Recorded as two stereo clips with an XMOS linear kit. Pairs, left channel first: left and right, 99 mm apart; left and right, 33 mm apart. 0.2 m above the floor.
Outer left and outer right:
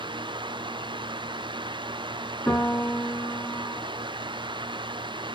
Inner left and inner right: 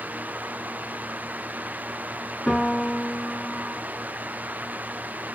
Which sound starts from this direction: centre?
A piano, at 2.5 s.